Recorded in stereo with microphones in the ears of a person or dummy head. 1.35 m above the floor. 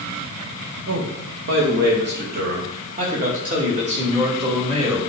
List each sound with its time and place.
0.9 s a man speaking: 70° right (ahead or behind), 1.7 m; by 5.0 s 30° right (ahead or behind), 3 m